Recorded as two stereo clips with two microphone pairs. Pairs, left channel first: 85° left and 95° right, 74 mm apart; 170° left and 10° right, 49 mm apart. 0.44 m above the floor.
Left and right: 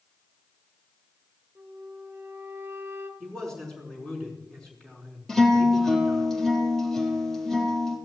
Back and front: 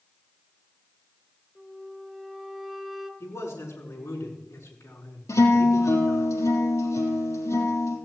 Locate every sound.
1.6 s a flute: 100° right, 1.5 m
3.2 s a man speaking: 165° left, 5 m
5.3 s a guitar: 170° left, 4 m